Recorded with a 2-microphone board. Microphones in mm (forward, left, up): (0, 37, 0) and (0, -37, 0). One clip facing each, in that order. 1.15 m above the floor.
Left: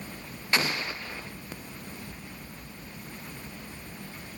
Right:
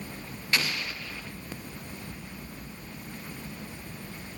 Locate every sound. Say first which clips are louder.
0.5 s an explosion: left 2 dB; 30° left (ahead or behind), 0.5 m